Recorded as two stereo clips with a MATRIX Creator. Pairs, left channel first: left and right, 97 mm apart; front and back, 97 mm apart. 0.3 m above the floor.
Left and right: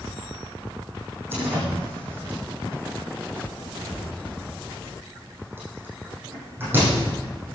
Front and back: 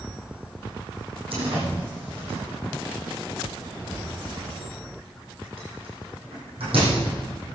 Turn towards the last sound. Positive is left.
turn(degrees=-160)